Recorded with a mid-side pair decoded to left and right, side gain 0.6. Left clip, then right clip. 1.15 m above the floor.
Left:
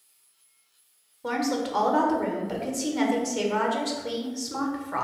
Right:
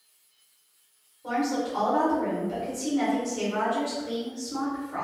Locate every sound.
1.2 s a woman speaking: 55° left, 1.0 m